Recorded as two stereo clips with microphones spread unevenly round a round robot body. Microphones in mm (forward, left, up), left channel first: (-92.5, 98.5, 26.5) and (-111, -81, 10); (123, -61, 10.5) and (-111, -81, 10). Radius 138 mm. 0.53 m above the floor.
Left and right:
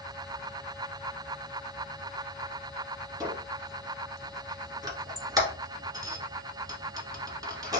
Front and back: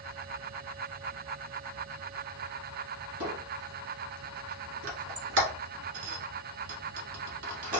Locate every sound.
3.2 s a squeak: 165° right, 1.2 m